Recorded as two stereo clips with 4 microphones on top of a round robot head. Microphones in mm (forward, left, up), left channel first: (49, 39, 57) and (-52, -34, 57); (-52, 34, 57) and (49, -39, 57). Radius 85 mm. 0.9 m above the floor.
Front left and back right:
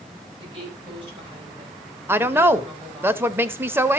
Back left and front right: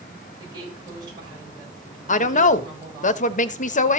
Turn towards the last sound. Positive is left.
turn(degrees=145)